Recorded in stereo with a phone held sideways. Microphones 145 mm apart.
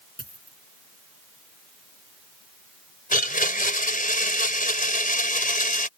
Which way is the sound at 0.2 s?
85° left.